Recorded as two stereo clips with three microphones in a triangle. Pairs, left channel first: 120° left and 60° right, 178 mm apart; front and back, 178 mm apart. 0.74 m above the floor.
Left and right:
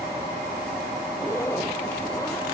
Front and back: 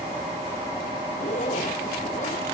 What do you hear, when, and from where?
1.1 s a zipper: 45° left